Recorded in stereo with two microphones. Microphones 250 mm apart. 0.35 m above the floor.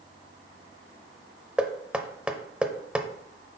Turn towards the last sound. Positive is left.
turn(degrees=-5)  # may be behind; listen again after turning